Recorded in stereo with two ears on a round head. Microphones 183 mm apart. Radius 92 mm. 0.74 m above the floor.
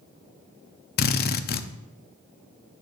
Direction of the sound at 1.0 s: 50° left (ahead or behind).